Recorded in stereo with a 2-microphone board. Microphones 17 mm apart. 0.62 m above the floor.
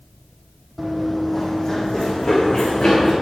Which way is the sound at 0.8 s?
5° right (ahead or behind).